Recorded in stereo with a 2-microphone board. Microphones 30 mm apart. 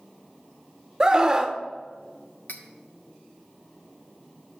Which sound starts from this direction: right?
A scream, at 1.0 s.